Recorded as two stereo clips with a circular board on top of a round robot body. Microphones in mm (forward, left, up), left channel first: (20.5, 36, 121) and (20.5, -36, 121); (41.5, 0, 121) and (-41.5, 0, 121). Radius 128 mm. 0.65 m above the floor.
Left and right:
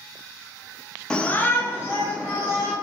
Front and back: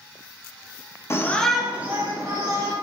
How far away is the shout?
About 0.6 m.